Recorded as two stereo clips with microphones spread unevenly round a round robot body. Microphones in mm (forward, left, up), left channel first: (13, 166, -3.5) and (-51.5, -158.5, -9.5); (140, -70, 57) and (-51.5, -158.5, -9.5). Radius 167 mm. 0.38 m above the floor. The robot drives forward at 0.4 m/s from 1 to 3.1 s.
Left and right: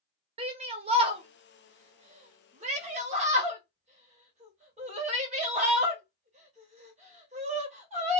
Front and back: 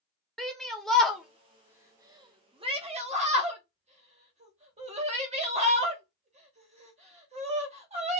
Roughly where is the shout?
Behind right.